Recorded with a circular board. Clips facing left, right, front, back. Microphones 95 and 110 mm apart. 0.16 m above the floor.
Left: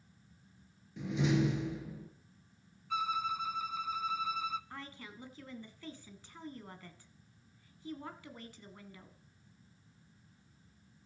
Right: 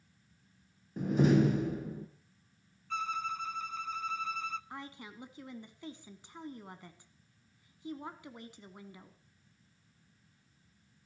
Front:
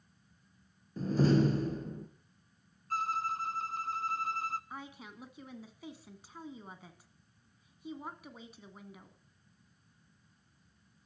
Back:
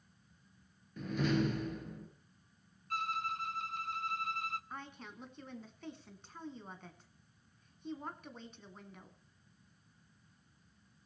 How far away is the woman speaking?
About 1.4 m.